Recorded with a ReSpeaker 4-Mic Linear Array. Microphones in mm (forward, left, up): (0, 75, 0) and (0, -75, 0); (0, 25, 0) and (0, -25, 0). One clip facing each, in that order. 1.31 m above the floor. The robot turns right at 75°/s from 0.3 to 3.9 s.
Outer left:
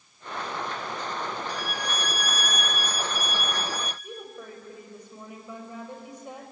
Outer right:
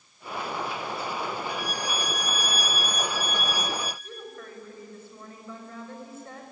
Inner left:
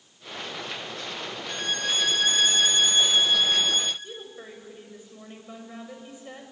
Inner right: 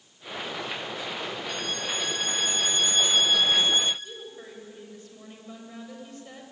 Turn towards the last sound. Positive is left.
turn(degrees=15)  # may be behind; listen again after turning